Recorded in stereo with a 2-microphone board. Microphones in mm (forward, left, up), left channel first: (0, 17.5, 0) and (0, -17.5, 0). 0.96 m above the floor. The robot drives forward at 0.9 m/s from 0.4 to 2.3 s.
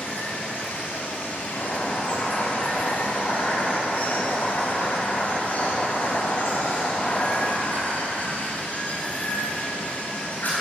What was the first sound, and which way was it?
Running water, 60° left (ahead or behind).